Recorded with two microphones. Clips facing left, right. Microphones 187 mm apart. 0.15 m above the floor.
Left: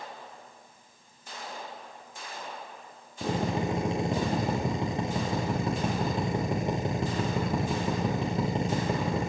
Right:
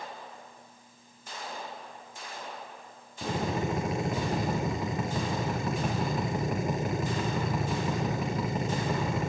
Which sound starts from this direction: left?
A drill, at 3.2 s.